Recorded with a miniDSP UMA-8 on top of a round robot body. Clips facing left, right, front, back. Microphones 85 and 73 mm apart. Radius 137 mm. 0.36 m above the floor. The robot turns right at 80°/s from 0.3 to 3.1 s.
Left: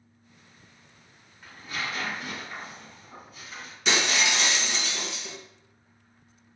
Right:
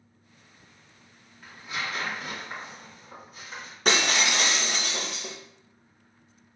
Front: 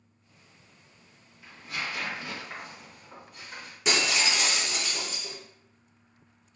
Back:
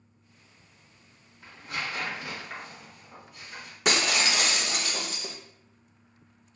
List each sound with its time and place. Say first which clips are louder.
1.4 s tearing paper: even, back 1 dB; straight behind, 1.9 m; by 3.8 s 45° right, 1.9 m
3.9 s breaking glass: right 1 dB, back 1 dB; 140° right, 0.5 m